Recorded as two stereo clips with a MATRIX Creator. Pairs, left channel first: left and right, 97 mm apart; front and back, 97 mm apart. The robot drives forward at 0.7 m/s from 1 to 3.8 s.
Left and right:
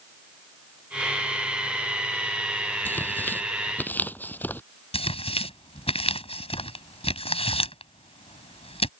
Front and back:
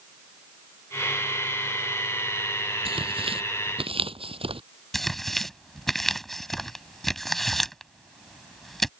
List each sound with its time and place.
2.9 s tearing paper: 160° left
4.9 s tearing paper: 90° left